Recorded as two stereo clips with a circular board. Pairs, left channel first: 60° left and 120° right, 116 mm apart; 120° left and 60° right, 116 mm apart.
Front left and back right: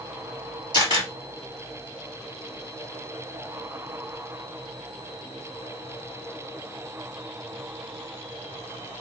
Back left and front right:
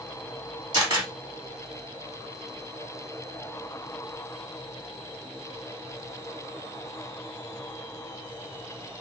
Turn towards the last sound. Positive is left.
turn(degrees=-95)